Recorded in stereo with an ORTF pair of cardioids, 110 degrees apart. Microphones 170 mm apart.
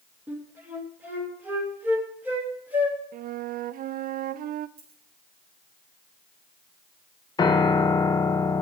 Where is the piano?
25° left, 1.0 m.